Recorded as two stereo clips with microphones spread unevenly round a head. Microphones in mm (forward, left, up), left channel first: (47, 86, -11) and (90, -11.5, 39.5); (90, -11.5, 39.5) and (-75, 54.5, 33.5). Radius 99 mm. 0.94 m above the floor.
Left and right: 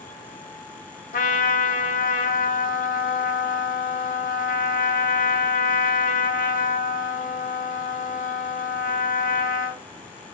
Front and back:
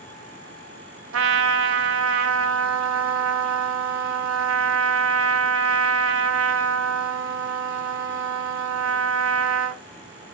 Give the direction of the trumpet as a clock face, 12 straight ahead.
7 o'clock.